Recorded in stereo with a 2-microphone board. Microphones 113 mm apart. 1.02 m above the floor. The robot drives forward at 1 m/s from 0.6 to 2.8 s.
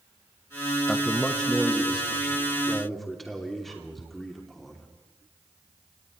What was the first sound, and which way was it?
A man speaking, 10° left (ahead or behind).